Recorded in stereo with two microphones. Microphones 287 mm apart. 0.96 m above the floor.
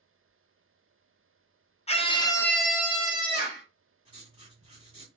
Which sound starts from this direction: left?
A scream, at 1.9 s.